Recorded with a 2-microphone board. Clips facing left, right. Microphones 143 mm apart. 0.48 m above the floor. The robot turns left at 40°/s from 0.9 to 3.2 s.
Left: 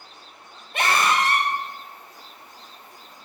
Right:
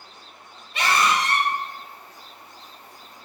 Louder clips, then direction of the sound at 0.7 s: Even; 50° left (ahead or behind).